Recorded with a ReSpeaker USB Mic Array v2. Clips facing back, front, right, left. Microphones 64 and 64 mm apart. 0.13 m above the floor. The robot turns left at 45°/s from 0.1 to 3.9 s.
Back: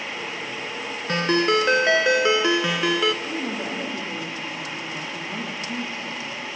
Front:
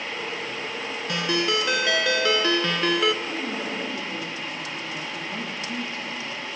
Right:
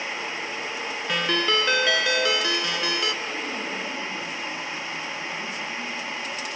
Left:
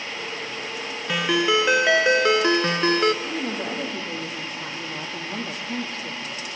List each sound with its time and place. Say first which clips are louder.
1.1 s a ringtone: back 5 dB, left 3 dB; 175° left, 0.6 m; by 3.1 s 85° left, 0.6 m
3.2 s a woman speaking: back 1 dB, left 3 dB; 130° left, 4.5 m; by 6.6 s 100° left, 4.5 m